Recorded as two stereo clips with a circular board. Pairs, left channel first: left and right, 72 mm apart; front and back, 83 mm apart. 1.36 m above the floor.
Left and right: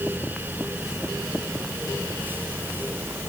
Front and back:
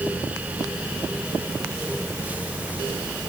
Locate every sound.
Only background noise.